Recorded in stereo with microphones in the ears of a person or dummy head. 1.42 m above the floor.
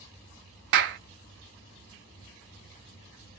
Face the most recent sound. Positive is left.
turn(degrees=-55)  # may be behind; listen again after turning